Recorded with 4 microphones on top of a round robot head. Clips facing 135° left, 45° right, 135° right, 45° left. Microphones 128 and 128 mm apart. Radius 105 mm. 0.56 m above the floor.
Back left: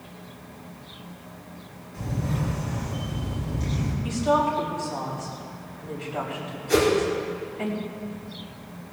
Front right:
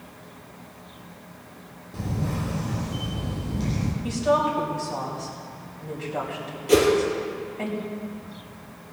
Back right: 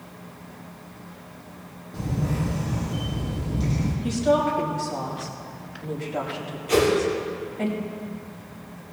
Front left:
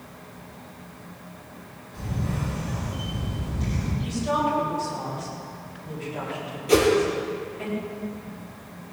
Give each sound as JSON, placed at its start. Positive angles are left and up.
{"t": 1.9, "sound": "a camera shutter", "azimuth_deg": -75, "distance_m": 4.0}
{"t": 4.0, "sound": "a woman speaking", "azimuth_deg": -100, "distance_m": 4.5}
{"t": 6.7, "sound": "a whoosh", "azimuth_deg": -15, "distance_m": 3.5}